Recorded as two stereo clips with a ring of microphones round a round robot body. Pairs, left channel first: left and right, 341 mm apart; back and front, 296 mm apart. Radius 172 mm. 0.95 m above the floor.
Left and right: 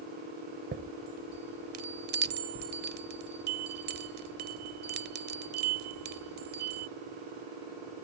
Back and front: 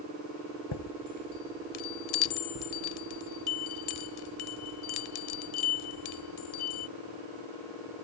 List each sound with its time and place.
0.7 s a chime: 155° right